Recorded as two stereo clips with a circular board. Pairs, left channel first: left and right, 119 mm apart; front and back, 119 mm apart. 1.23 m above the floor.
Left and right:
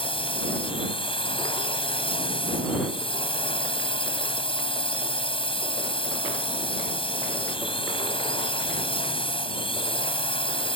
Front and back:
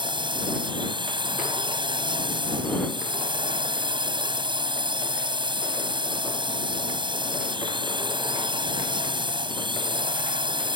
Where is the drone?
135° left.